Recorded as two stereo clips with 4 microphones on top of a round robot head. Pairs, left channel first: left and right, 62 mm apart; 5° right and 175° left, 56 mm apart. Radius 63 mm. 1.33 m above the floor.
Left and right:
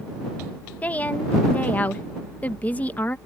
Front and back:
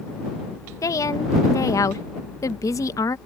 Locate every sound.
0.8 s a woman speaking: 20° left